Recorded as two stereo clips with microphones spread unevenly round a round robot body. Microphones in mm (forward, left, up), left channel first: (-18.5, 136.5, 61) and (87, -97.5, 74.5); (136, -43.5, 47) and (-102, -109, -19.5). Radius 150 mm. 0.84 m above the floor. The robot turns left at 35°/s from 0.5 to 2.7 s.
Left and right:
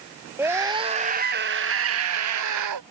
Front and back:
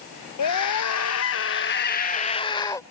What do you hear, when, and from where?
0.4 s a scream: 15° left; by 2.8 s 60° right